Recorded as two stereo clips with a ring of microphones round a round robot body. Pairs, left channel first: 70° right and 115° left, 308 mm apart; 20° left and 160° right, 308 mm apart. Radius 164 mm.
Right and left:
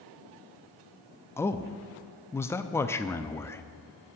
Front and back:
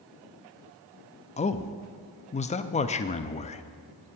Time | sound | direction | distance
1.4 | a man speaking | straight ahead | 0.5 m